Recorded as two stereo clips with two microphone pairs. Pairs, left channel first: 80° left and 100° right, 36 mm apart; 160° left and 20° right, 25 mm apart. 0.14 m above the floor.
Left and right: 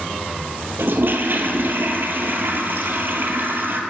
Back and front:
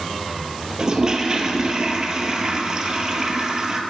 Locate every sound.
0.8 s a toilet flushing: 85° right, 0.8 m